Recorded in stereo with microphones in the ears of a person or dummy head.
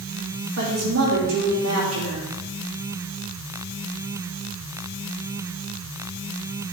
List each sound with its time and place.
0.6 s a woman speaking: 80° right, 2.5 m